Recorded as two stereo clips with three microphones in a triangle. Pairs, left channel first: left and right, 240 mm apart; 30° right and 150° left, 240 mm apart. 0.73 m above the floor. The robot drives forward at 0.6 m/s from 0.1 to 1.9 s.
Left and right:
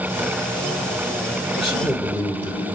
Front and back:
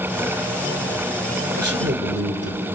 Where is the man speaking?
155° left, 2 m; by 2.6 s 160° left, 2.5 m.